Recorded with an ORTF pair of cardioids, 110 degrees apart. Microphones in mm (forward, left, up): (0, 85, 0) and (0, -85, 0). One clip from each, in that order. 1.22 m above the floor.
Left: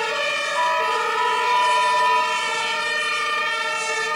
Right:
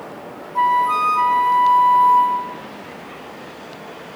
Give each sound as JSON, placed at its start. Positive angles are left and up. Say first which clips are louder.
{"t": 0.6, "sound": "a flute", "louder": "right 7 dB", "azimuth_deg": -35, "distance_m": 0.7}